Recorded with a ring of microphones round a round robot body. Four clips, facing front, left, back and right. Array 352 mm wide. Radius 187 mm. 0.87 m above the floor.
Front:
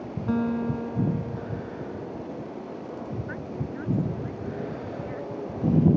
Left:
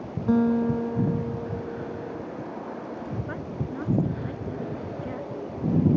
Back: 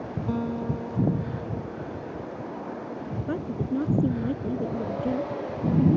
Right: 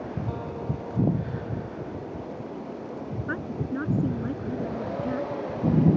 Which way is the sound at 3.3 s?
155° right.